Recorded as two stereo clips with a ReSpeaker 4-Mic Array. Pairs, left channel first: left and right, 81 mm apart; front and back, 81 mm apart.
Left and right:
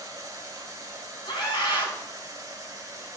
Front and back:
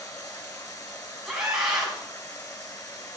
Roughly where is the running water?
Ahead right.